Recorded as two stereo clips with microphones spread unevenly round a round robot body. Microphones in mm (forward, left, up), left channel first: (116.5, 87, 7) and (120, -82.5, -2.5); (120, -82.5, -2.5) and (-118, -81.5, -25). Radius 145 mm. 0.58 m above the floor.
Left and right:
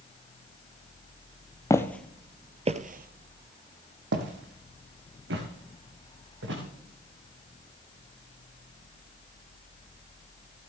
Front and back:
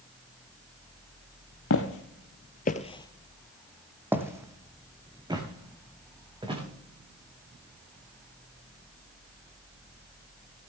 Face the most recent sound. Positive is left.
turn(degrees=-110)